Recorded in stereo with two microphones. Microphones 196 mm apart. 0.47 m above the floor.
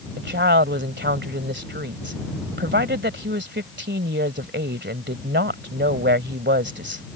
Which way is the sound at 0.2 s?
65° right (ahead or behind).